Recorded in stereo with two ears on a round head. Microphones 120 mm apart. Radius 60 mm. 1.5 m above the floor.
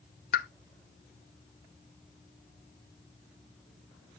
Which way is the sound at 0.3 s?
75° left (ahead or behind).